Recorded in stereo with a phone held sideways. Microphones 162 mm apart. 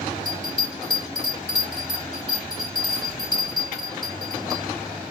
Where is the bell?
50° right (ahead or behind), 3 m.